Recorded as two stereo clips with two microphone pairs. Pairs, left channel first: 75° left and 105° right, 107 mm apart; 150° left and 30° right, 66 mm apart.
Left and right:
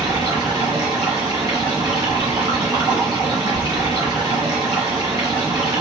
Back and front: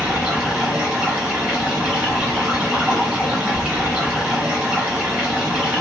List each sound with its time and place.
0.0 s running water: 100° right, 1.3 m